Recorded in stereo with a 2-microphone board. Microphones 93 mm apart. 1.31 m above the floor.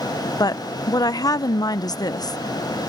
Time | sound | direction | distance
0.4 | a woman speaking | 40° left (ahead or behind) | ?